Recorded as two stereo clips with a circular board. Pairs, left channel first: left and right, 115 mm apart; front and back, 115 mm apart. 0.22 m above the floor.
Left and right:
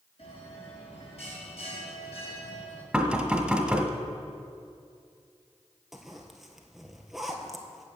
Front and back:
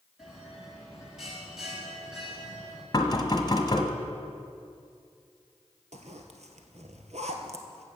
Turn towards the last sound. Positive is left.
turn(degrees=-175)